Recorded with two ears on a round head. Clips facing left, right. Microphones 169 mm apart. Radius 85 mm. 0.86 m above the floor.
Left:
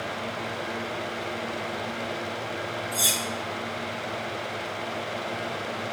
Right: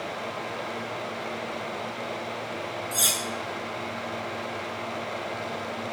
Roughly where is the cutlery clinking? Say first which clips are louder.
Left 1 dB; right.